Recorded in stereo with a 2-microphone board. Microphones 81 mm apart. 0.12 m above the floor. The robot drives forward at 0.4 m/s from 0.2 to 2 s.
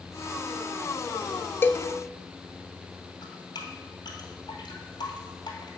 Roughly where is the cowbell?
Left.